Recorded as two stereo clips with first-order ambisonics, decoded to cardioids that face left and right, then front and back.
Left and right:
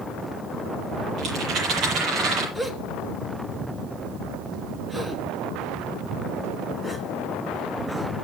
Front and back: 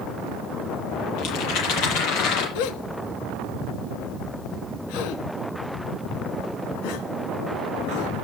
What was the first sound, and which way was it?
A rattle, 35° right.